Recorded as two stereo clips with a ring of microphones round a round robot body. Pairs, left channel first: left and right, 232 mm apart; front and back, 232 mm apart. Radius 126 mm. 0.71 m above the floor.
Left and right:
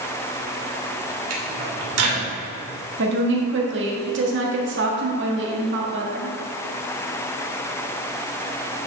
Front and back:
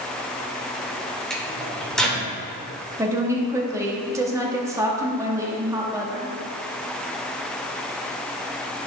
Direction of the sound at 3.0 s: 105° right.